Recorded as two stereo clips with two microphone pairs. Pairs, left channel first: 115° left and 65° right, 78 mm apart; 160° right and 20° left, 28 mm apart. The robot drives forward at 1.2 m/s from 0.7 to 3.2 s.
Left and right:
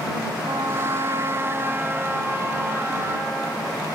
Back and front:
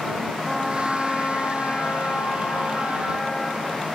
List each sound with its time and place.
0.4 s a trumpet: 60° right, 1.0 m; by 4.0 s 165° right, 2.5 m